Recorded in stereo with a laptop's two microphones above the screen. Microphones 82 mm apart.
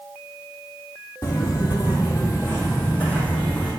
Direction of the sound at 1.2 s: 50° left (ahead or behind).